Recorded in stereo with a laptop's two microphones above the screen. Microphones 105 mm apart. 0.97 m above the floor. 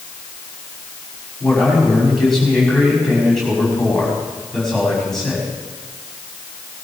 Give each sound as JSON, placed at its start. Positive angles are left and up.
{"t": 1.4, "sound": "a man speaking", "side_deg": 5, "distance_m": 6.0}